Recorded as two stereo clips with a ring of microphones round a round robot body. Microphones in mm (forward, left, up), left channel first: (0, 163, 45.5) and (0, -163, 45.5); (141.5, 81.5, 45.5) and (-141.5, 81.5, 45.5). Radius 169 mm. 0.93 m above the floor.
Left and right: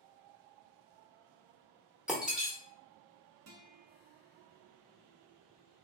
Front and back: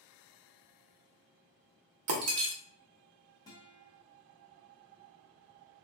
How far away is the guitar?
About 0.7 m.